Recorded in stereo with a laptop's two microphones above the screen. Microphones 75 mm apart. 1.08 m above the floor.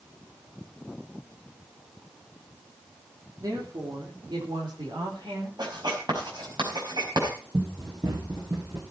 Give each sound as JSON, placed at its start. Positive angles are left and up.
{"t": 3.4, "sound": "a woman speaking", "side_deg": -60, "distance_m": 3.0}
{"t": 5.6, "sound": "writing", "side_deg": -70, "distance_m": 5.0}
{"t": 7.5, "sound": "running footsteps", "side_deg": -60, "distance_m": 6.0}